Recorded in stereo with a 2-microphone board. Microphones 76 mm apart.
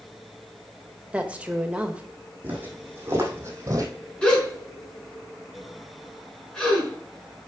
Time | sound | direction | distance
1.1 | a woman speaking | 15° right (ahead or behind) | 1.2 m
2.4 | footsteps | 25° right (ahead or behind) | 2.5 m
4.2 | a gasp | 10° left (ahead or behind) | 4 m